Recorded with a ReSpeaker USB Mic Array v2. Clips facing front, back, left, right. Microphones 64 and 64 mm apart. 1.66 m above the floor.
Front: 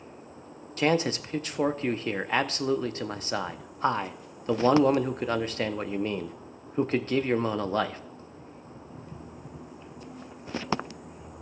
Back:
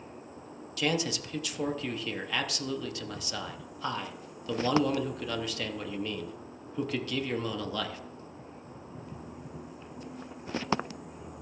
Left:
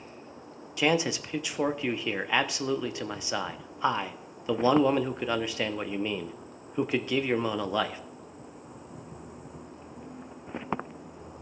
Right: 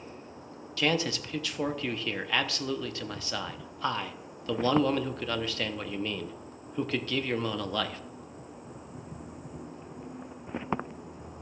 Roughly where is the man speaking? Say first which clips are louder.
Front 5 dB, left 3 dB; ahead left.